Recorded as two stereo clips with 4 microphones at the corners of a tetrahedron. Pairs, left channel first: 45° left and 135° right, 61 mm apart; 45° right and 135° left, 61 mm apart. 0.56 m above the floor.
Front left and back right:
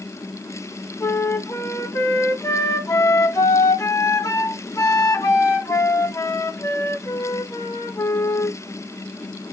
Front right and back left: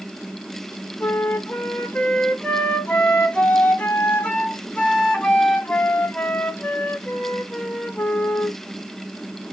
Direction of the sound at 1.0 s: 25° left.